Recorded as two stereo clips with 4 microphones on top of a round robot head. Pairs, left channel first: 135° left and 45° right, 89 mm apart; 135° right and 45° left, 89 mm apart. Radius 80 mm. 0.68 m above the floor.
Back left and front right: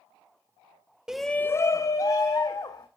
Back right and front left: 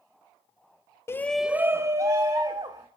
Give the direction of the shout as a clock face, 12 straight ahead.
4 o'clock.